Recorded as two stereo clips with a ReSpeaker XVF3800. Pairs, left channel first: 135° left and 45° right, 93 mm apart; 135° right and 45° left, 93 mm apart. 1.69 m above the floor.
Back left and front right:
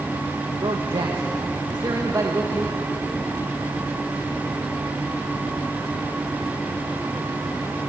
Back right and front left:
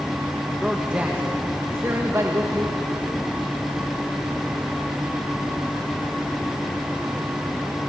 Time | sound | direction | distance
0.6 | a man speaking | 35° right | 2 m